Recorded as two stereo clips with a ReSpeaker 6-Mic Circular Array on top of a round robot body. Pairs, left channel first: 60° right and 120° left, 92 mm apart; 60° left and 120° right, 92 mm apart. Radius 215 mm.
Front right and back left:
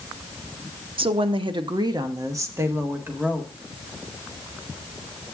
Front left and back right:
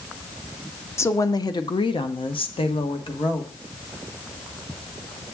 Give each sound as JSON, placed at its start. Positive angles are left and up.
{"t": 1.0, "sound": "a woman speaking", "azimuth_deg": 120, "distance_m": 1.0}